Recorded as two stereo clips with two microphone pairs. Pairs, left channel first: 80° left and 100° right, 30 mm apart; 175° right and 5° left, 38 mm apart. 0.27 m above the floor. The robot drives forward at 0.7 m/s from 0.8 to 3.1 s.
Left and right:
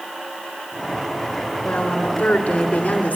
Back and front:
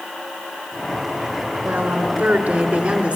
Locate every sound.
1.6 s a woman speaking: 40° left, 3.5 m; by 3.2 s 55° left, 2.5 m